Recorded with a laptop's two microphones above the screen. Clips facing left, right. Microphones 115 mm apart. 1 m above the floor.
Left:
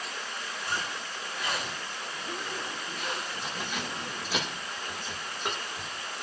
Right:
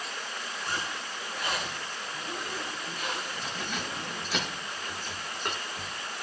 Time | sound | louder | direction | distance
0.6 | a zipper | left 1 dB | 30° right (ahead or behind) | 5 m
3.4 | keys jangling | even | 5° left (ahead or behind) | 1.9 m